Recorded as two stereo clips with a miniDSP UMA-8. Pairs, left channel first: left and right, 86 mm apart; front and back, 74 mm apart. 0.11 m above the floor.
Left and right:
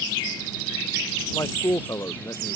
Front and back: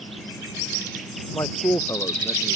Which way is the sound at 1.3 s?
35° left.